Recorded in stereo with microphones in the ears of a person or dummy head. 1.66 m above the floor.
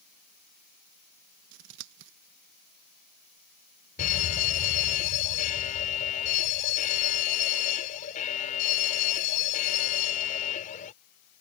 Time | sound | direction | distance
1.5 | scissors | 65° right (ahead or behind) | ?
4.0 | a fire alarm | 40° left (ahead or behind) | ?